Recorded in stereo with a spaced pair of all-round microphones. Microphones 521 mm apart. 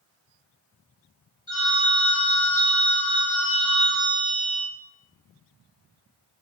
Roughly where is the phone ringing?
Left.